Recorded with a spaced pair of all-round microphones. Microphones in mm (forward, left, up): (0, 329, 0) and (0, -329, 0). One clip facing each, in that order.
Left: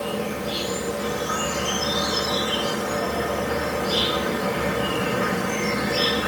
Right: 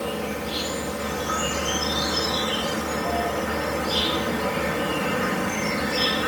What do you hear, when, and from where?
0.0 s an insect: 90° left, 4 m